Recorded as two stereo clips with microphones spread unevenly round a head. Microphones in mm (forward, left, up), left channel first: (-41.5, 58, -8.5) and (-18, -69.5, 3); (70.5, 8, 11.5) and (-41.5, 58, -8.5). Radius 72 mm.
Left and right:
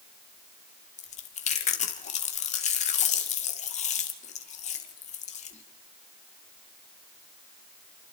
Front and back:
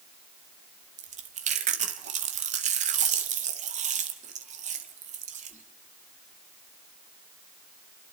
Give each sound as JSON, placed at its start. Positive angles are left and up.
{"t": 1.0, "sound": "chewing", "azimuth_deg": 135, "distance_m": 2.0}